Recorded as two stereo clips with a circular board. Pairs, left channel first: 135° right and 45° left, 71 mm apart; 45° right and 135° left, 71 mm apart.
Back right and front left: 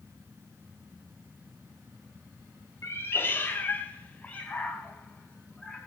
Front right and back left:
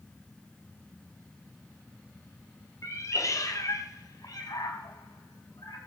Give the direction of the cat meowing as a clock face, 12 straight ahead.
3 o'clock.